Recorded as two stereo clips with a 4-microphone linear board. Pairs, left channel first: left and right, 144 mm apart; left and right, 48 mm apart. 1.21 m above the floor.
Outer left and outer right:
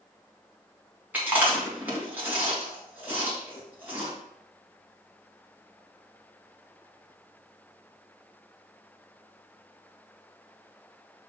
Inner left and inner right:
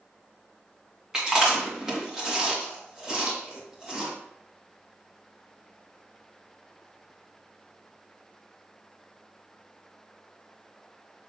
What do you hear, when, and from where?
1.1 s chewing: 10° right (ahead or behind), 1.9 m